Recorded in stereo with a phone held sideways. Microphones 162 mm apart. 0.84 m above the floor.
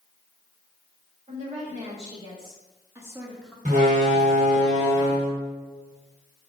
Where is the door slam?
45° right (ahead or behind), 2 m.